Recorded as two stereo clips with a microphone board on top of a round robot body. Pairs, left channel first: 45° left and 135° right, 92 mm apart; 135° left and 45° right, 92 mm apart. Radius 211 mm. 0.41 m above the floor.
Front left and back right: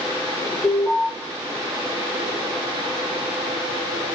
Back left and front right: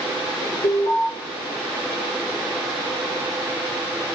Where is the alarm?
115° left, 6.5 m.